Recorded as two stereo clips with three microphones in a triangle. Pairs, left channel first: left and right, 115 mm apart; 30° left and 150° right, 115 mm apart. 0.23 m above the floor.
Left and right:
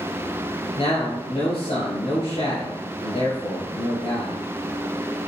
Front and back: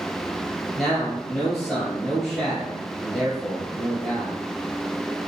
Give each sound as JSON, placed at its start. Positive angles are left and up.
{"t": 0.8, "sound": "a man speaking", "azimuth_deg": 120, "distance_m": 3.0}